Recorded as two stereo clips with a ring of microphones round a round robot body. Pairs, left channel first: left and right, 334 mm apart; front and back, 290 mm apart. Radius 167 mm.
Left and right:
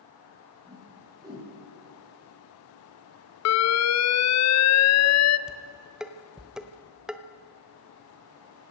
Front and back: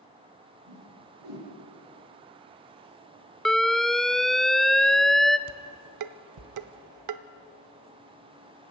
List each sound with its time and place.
0.7 s a whoosh: 170° right, 9 m
3.5 s an alarm: 90° left, 0.7 m
5.5 s dishes clattering: straight behind, 1.0 m